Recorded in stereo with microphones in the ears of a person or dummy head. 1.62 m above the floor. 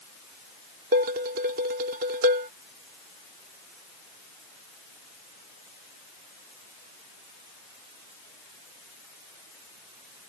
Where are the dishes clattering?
45° right (ahead or behind).